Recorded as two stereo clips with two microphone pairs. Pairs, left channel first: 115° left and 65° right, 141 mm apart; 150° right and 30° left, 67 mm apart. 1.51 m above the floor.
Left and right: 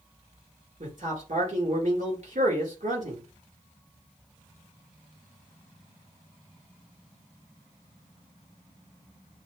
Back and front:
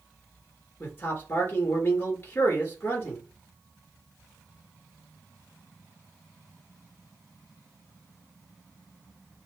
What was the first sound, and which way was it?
A man speaking, 95° right.